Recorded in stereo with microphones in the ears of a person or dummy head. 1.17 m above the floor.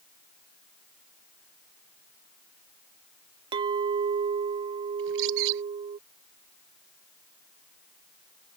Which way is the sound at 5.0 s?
75° right (ahead or behind).